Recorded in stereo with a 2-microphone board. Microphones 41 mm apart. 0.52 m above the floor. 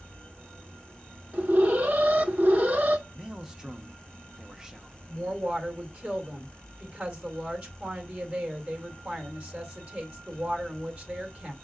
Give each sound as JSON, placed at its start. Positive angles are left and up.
{"t": 1.3, "sound": "an alarm", "side_deg": -40, "distance_m": 1.0}
{"t": 3.1, "sound": "a man speaking", "side_deg": -15, "distance_m": 0.8}
{"t": 5.1, "sound": "a woman speaking", "side_deg": -25, "distance_m": 2.0}